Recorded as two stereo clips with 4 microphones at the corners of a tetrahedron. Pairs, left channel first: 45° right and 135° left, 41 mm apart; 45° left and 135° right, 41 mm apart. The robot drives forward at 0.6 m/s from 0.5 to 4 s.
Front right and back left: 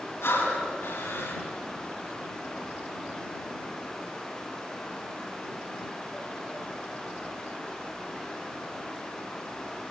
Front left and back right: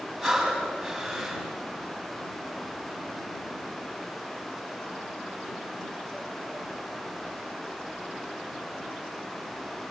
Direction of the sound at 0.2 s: 45° right.